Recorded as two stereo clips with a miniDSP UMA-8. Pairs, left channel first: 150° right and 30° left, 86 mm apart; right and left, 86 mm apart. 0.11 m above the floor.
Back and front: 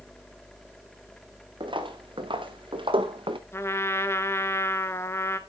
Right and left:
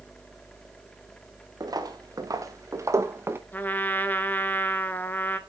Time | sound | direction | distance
1.6 | footsteps | 45° left | 2 m
3.5 | a trumpet | 140° right | 0.8 m